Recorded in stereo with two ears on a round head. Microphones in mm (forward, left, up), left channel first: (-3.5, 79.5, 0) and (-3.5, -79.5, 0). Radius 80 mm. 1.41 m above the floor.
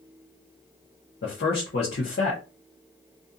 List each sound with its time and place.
1.2 s a man speaking: 60° left (ahead or behind), 0.9 m